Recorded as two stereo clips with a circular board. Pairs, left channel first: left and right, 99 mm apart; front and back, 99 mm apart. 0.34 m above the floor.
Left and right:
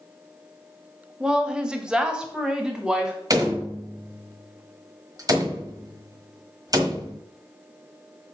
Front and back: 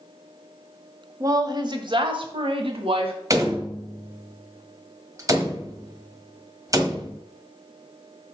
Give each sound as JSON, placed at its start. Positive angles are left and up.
{"t": 1.2, "sound": "a woman speaking", "azimuth_deg": -165, "distance_m": 0.9}
{"t": 3.3, "sound": "a door slam", "azimuth_deg": -135, "distance_m": 1.4}